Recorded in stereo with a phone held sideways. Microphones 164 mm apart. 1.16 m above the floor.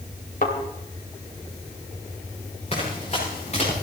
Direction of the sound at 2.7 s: 40° left (ahead or behind).